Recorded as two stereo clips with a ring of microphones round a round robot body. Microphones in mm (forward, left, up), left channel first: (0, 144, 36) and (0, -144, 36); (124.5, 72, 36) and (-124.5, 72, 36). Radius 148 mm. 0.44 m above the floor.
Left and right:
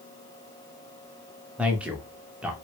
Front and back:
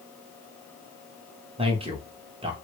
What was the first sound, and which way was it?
A man speaking, 170° right.